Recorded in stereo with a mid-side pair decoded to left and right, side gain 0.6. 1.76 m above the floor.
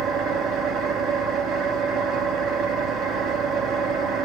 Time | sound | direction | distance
0.0 | an engine running | 55° right | 2.5 m